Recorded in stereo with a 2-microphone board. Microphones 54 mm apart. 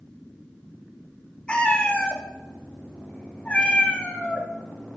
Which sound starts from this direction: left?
A cat meowing, at 1.5 s.